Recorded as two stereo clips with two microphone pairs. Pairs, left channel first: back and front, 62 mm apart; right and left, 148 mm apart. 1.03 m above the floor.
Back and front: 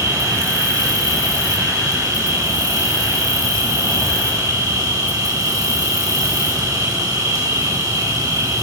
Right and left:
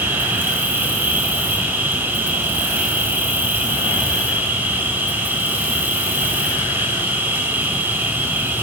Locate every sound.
0.0 s an insect: 15° left, 9 m